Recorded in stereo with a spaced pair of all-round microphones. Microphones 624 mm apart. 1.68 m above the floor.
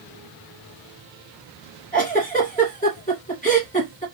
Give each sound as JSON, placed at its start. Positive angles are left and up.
{"t": 1.9, "sound": "a giggle", "side_deg": 10, "distance_m": 2.5}